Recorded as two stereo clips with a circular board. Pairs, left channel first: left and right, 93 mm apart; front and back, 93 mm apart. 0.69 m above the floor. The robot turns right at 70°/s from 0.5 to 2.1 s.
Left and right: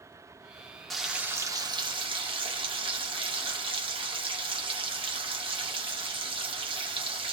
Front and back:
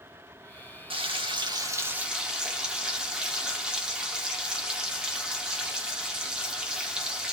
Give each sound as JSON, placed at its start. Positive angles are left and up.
{"t": 0.9, "sound": "frying", "azimuth_deg": 175, "distance_m": 0.9}